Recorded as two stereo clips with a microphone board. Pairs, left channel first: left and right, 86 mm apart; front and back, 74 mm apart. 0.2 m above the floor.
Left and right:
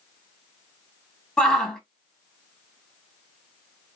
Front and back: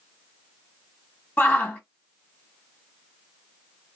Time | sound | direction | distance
1.4 | a shout | 20° left | 1.1 m